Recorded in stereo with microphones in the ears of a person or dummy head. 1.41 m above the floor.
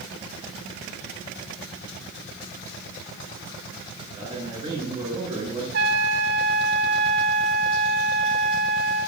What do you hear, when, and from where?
4.2 s a man speaking: 25° right (ahead or behind), 5.5 m
5.7 s a trumpet: 55° right (ahead or behind), 0.9 m